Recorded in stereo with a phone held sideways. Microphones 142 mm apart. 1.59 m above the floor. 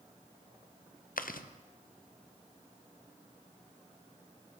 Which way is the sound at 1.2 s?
85° left.